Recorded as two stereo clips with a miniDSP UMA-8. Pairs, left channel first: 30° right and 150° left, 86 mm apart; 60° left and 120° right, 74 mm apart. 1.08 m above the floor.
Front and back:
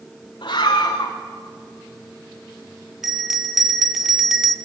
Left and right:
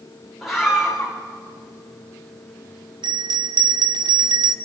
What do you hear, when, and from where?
0.4 s a scream: 30° right, 3 m
3.0 s a bell: 125° right, 1.7 m